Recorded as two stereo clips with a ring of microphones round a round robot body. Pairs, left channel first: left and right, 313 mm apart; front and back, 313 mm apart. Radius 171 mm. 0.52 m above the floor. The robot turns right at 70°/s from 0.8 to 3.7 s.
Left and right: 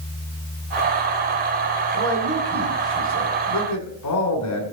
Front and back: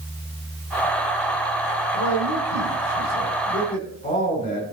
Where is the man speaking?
50° right, 2.5 m; by 4.6 s 75° left, 2.5 m.